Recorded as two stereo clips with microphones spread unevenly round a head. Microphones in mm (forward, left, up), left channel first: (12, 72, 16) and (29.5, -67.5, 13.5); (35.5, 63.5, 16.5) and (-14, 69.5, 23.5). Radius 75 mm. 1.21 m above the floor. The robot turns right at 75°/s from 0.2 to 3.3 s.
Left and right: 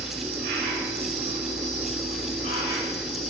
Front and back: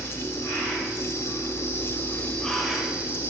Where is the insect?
100° right, 7 m; by 3.3 s 130° left, 7 m.